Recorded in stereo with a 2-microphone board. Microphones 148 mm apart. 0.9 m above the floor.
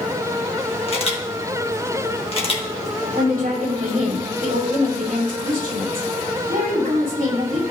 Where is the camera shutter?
40° left (ahead or behind), 1.7 m.